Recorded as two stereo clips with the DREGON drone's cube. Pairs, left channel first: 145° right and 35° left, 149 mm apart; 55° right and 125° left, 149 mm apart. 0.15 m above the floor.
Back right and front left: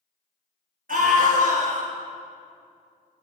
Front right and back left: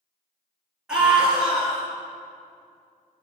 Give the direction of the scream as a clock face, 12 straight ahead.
11 o'clock.